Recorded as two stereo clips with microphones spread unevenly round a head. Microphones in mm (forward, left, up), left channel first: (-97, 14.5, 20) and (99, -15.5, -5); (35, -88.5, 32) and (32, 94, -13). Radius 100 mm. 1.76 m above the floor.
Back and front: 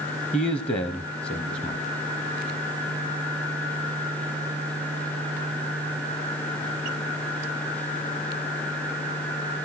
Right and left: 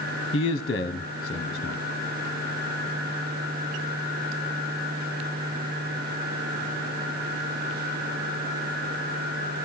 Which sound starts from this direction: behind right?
A man speaking, at 0.3 s.